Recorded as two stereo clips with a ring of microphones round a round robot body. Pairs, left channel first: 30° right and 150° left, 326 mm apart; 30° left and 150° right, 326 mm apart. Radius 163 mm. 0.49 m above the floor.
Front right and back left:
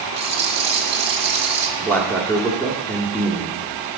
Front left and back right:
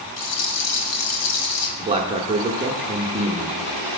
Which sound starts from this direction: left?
A rattle, at 0.2 s.